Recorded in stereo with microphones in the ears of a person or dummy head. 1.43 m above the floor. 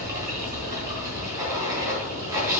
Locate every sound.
0.0 s running water: 15° right (ahead or behind), 3.5 m